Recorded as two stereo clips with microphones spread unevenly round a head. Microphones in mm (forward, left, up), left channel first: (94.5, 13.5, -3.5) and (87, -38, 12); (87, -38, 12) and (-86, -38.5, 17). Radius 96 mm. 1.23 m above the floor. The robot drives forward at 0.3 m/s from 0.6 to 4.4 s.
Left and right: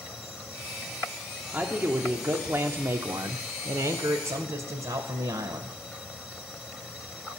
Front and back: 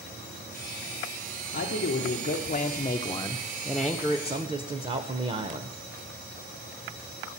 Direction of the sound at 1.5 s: 35° right.